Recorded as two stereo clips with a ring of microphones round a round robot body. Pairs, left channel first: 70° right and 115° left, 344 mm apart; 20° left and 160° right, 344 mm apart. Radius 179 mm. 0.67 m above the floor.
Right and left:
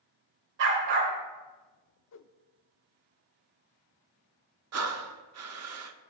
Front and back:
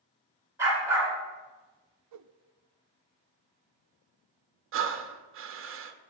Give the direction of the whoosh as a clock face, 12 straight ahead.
4 o'clock.